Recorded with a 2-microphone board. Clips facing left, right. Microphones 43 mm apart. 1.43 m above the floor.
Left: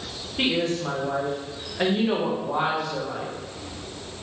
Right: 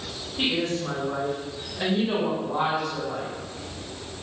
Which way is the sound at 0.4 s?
40° left (ahead or behind).